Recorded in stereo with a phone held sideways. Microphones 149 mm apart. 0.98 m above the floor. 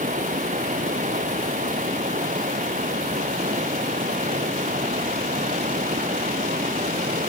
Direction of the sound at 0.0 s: 60° right (ahead or behind).